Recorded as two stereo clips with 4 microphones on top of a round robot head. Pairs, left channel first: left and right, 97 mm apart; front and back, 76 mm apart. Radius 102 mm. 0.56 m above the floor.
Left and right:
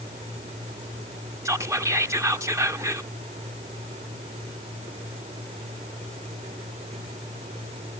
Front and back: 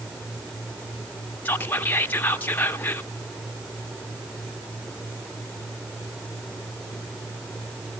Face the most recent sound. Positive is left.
turn(degrees=-50)